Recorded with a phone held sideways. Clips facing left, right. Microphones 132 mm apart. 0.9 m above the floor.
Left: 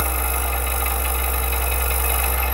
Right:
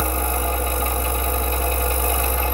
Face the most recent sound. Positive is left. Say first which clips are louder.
# right 3 dB
turn(degrees=-25)  # may be behind; listen again after turning